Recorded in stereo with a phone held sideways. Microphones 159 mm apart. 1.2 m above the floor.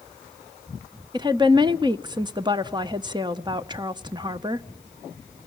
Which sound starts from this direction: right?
A woman speaking, at 1.1 s.